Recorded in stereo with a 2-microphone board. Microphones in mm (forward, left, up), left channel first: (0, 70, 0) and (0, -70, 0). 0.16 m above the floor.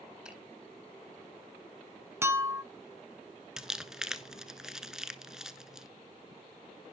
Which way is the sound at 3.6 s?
5° right (ahead or behind).